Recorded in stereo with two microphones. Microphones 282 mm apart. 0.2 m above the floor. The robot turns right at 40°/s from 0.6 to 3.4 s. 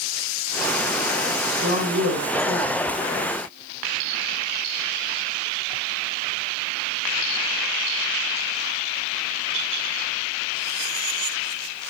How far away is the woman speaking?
About 6 m.